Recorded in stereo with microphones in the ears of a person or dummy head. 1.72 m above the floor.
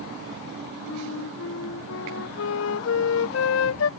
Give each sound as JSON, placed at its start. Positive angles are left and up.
{"t": 0.9, "sound": "a flute", "side_deg": 75}